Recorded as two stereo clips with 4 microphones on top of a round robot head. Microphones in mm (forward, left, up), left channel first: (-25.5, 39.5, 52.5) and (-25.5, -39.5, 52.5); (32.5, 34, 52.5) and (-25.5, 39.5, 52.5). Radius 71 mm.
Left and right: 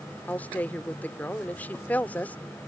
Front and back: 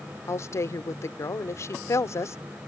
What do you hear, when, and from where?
0.3 s a woman speaking: 20° left